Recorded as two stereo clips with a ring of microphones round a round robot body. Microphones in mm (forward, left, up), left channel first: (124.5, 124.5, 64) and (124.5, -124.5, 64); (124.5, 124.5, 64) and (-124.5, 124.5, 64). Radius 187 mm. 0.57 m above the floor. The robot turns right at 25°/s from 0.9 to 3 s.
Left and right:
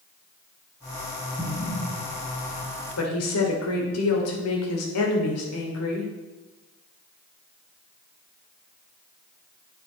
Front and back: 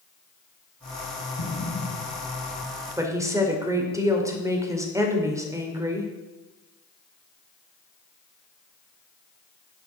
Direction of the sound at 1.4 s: 25° left.